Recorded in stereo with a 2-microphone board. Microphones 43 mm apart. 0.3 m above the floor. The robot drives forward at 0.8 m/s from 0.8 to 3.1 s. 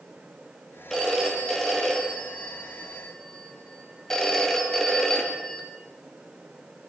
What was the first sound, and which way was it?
A phone ringing, 5° left (ahead or behind).